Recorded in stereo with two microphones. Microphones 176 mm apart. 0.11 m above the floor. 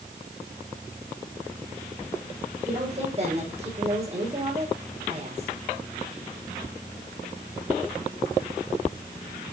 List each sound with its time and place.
2.6 s a woman speaking: 40° right (ahead or behind), 5.5 m